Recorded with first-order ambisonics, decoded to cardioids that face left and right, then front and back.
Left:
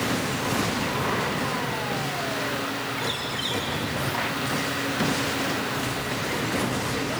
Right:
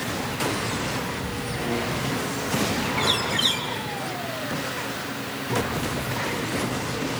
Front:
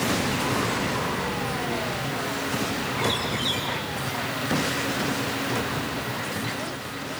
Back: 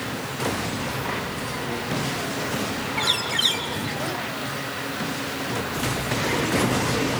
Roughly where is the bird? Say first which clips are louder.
Right 10 dB, back 6 dB; behind right.